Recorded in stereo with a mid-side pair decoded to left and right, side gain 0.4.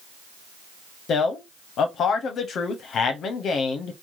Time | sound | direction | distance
1.1 | a man speaking | 70° left | 0.6 m